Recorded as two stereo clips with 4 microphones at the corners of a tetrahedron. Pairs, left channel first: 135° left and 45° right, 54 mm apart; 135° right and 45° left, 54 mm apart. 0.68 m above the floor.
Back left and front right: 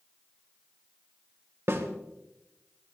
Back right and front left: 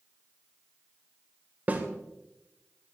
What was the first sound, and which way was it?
A snare drum, 10° right.